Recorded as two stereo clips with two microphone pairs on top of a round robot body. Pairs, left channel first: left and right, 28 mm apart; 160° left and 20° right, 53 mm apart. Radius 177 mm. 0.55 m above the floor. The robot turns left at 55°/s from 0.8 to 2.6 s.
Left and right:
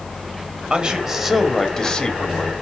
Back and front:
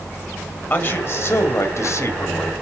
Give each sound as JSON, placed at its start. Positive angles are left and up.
{"t": 0.7, "sound": "a man speaking", "azimuth_deg": -155, "distance_m": 2.5}